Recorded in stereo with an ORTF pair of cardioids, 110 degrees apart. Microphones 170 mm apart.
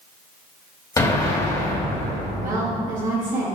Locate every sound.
1.0 s an explosion: 20° left, 2.5 m
2.4 s a woman speaking: 55° right, 2 m